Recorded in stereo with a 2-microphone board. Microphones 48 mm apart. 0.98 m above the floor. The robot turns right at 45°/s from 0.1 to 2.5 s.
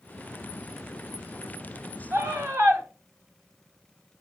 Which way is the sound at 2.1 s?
70° right (ahead or behind).